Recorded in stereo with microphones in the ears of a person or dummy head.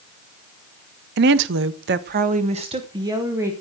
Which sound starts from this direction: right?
A woman speaking, at 1.2 s.